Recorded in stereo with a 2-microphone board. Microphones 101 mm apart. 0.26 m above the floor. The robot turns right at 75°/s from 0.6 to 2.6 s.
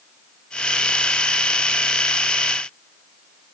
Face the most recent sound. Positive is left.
No sound to turn to.